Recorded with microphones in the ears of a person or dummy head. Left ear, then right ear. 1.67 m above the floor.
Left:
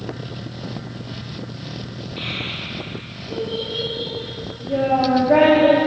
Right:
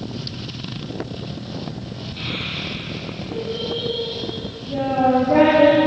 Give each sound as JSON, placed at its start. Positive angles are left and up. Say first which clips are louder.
{"t": 2.2, "sound": "a child speaking", "louder": "even", "side_deg": 15, "distance_m": 3.5}